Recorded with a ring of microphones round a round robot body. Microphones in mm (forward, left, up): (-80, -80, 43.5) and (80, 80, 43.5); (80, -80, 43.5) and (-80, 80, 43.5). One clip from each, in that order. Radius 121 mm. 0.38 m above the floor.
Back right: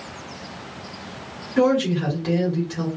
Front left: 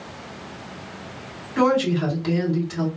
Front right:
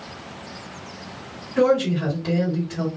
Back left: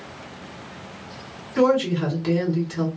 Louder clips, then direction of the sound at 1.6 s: Even, even; 105° left.